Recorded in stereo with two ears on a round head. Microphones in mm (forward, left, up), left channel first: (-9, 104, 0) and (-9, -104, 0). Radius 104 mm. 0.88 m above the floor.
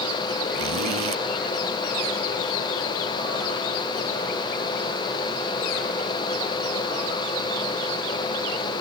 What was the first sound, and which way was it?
A zipper, 70° right (ahead or behind).